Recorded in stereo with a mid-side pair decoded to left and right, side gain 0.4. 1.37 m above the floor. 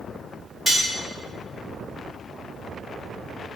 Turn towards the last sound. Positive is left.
turn(degrees=10)